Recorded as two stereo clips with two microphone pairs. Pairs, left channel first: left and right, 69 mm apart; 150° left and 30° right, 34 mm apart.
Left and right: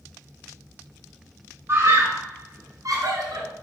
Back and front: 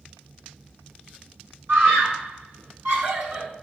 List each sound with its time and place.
1.7 s a scream: 35° right, 3.5 m; by 3.5 s 65° right, 4 m